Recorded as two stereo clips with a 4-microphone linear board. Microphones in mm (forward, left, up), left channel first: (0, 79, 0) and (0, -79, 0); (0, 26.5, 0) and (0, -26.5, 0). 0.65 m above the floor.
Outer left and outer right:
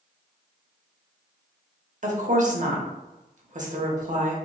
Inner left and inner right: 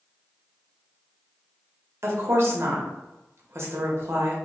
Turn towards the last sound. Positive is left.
turn(degrees=-55)  # may be behind; listen again after turning